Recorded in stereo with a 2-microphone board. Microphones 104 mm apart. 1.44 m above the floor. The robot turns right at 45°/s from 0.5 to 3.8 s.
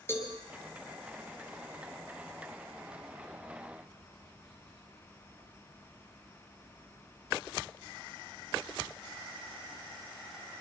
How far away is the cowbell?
About 4.5 m.